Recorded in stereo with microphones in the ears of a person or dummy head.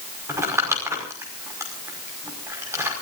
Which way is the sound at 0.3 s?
15° right (ahead or behind).